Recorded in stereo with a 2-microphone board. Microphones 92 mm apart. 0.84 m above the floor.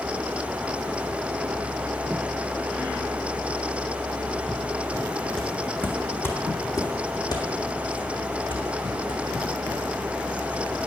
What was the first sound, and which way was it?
Footsteps, 10° left (ahead or behind).